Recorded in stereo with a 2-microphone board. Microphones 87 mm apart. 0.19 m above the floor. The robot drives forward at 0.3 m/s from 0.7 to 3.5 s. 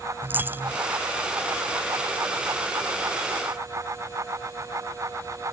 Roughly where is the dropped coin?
Right.